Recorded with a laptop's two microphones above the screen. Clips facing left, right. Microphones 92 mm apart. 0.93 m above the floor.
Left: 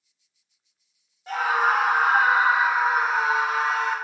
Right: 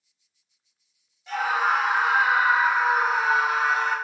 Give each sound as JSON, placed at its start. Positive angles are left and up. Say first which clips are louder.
{"t": 1.3, "sound": "a scream", "louder": "left 2 dB", "side_deg": 40, "distance_m": 1.0}